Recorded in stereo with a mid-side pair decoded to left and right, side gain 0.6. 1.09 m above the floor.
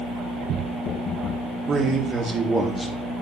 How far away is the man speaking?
About 1.7 m.